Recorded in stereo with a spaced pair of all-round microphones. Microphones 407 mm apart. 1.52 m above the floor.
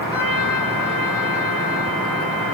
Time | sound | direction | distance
0.1 | a trumpet | 55° left (ahead or behind) | 3 m